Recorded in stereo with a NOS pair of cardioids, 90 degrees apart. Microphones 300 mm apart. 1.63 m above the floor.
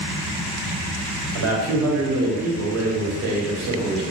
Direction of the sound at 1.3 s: 60° right.